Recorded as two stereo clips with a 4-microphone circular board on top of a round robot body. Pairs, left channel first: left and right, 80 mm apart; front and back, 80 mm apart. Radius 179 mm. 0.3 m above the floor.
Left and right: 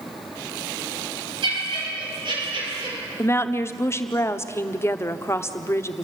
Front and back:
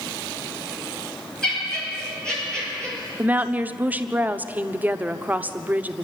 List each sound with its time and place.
1.4 s laughter: 80° right, 8 m
3.2 s a woman speaking: 120° left, 1.3 m